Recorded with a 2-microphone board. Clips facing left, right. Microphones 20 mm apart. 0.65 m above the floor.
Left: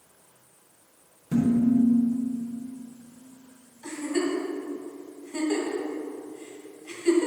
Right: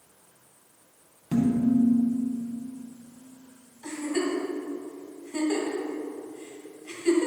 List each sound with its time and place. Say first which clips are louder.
1.3 s dishes clattering: left 1 dB; 60° right (ahead or behind), 3 m
3.8 s a giggle: left 1 dB; 10° right (ahead or behind), 2.0 m